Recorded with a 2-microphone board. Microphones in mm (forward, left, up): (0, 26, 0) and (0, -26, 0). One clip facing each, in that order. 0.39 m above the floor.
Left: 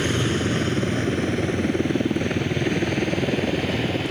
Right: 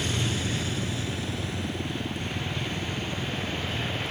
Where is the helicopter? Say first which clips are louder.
Left 7 dB; 45° left (ahead or behind); by 4.1 s 65° left (ahead or behind).